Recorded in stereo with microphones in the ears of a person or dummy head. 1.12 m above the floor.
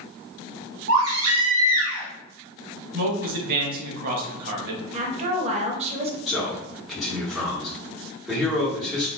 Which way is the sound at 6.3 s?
Centre (ahead or behind).